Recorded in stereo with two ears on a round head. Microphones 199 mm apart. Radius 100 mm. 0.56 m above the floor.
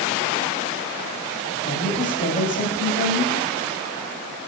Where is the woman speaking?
40° left (ahead or behind), 3.5 m.